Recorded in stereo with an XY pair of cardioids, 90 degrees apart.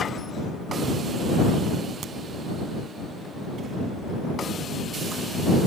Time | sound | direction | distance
2.0 | a crack | 70° right | ?